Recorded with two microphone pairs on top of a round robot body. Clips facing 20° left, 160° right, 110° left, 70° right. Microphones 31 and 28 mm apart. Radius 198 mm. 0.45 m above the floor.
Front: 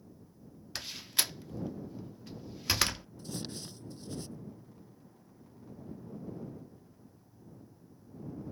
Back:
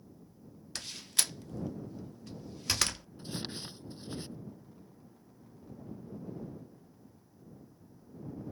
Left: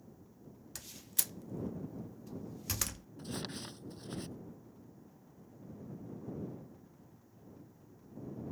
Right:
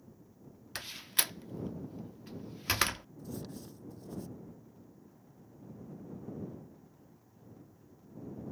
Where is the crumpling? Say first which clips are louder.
Back 3 dB, left 2 dB; 140° left.